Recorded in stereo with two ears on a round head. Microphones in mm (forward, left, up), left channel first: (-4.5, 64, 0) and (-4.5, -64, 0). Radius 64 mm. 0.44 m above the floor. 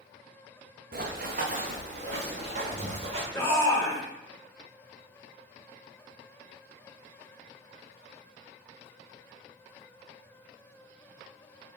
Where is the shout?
15° left (ahead or behind), 1.9 m.